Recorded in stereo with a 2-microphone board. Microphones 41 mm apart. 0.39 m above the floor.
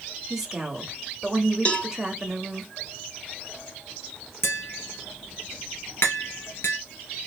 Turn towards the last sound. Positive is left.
turn(degrees=85)